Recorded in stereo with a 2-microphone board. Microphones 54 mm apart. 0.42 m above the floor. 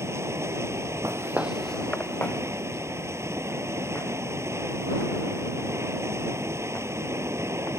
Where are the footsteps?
55° right (ahead or behind); by 7.7 s 50° left (ahead or behind).